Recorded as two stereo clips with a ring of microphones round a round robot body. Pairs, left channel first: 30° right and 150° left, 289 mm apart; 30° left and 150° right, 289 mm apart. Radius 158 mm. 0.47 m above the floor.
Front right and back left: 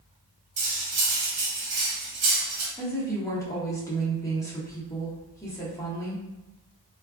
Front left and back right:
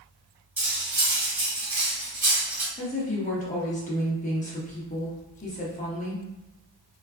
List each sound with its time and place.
0.6 s cutlery clinking: 130° left, 1.3 m
2.8 s a woman speaking: 35° left, 0.9 m